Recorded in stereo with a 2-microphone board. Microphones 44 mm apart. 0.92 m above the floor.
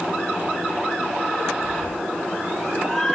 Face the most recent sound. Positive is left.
turn(degrees=15)  # may be behind; listen again after turning